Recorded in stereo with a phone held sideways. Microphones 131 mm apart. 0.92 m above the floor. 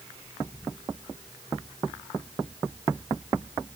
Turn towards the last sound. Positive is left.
No sound to turn to.